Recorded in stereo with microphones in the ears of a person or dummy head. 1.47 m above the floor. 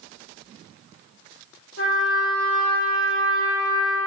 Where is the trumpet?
70° left (ahead or behind), 2 m.